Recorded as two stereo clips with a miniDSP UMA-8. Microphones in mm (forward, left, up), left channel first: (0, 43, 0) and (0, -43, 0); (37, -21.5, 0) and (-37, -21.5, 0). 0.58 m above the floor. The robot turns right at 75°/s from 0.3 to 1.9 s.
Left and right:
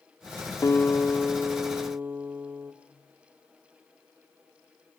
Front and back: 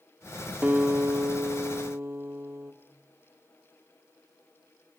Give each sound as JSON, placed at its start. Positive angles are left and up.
{"t": 0.6, "sound": "a guitar", "azimuth_deg": 120, "distance_m": 1.5}